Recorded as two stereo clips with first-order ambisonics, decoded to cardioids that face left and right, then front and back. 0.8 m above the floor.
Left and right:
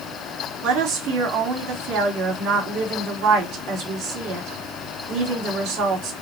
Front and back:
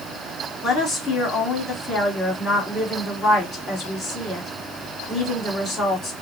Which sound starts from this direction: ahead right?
A woman speaking, at 0.6 s.